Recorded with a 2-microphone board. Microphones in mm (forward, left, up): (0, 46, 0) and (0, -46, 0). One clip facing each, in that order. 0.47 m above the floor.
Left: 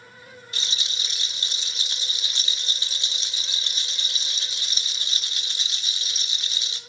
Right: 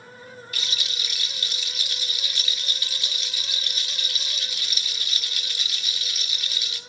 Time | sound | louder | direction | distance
0.5 | a rattle | left 1 dB | 25° left (ahead or behind) | 0.6 m